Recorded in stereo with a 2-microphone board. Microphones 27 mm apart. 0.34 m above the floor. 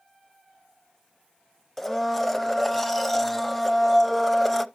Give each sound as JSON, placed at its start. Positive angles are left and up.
{"t": 1.8, "sound": "a blender", "side_deg": 10, "distance_m": 0.6}